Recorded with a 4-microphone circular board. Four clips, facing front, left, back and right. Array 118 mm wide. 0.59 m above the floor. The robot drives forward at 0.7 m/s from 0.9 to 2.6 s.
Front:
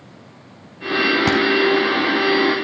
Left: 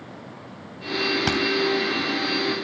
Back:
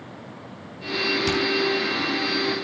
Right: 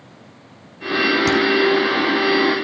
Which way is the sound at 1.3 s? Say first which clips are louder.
Right 7 dB, front 6 dB; 15° left.